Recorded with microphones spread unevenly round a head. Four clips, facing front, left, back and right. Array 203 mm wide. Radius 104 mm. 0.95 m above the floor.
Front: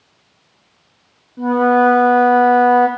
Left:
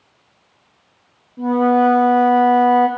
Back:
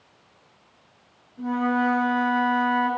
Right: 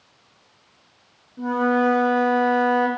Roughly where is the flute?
Ahead.